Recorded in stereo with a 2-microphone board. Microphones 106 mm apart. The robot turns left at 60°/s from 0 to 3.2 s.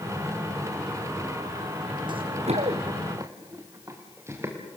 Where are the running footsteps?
45° right (ahead or behind), 1.5 m; by 4.5 s 25° right (ahead or behind), 5 m.